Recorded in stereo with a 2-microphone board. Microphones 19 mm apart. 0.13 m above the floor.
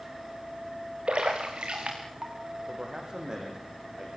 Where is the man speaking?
40° right (ahead or behind), 6 m.